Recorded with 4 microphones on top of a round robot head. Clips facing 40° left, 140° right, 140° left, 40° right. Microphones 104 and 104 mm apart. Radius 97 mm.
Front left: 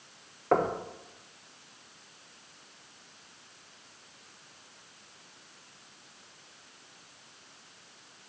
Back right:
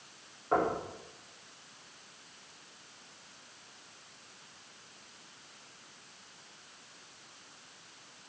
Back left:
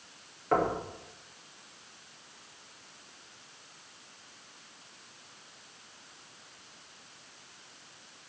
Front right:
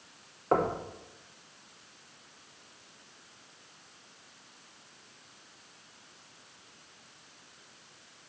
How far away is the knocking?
About 1.1 m.